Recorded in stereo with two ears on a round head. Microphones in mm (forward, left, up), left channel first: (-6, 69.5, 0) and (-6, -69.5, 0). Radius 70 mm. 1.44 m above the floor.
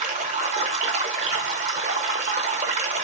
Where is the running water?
50° right (ahead or behind), 1.0 m.